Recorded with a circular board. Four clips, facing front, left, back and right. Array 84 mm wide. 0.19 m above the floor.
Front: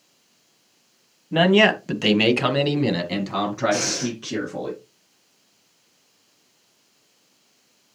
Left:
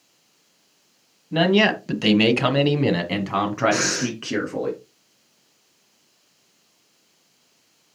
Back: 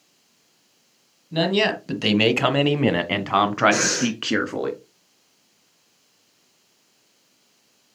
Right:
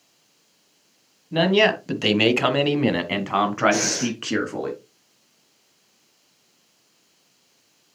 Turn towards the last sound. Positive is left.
turn(degrees=130)